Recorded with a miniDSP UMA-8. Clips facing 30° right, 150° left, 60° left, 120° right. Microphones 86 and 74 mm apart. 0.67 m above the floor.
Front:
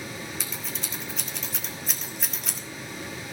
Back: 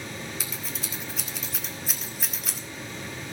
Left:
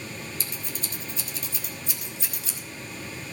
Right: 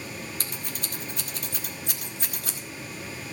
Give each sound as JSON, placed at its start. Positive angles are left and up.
{"t": 0.4, "sound": "scissors", "azimuth_deg": -120, "distance_m": 1.9}